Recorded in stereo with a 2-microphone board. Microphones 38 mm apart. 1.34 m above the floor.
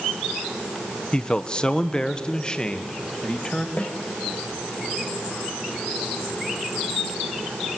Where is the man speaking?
30° left (ahead or behind), 0.8 m; by 3.7 s 25° left (ahead or behind), 2 m.